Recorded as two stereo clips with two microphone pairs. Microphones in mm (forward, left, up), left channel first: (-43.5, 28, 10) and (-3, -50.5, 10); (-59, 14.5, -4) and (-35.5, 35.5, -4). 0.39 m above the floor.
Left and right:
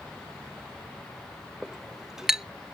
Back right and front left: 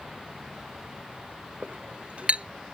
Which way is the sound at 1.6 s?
20° left.